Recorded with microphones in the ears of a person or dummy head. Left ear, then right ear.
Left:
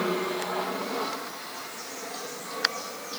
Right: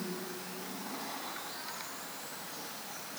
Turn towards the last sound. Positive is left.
No sound to turn to.